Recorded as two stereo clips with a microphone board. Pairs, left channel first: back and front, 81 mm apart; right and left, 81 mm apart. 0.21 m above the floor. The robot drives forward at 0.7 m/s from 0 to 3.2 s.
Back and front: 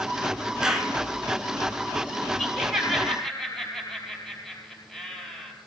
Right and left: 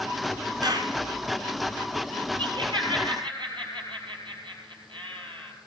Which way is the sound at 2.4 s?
85° left.